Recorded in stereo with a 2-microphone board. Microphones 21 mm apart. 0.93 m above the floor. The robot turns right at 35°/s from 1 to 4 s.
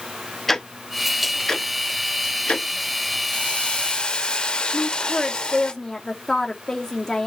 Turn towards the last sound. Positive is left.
turn(degrees=20)  # may be behind; listen again after turning